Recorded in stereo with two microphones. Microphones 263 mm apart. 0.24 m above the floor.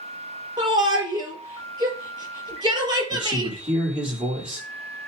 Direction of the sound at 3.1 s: 5° right (ahead or behind).